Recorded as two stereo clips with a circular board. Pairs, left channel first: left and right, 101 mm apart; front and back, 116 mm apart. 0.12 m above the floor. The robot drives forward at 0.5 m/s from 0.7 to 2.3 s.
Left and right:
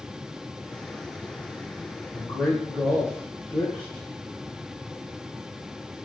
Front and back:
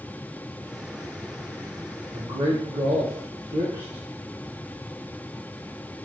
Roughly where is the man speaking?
Behind.